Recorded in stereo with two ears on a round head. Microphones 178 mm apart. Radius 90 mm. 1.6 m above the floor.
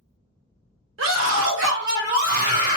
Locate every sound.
1.0 s a scream: 70° right (ahead or behind), 1.2 m; by 2.8 s 30° right (ahead or behind), 1.5 m